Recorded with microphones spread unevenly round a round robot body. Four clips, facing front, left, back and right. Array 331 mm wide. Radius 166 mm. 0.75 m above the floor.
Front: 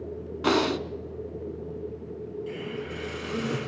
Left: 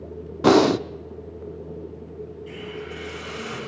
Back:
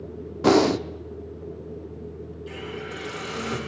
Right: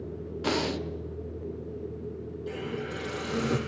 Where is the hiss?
70° right, 4 m.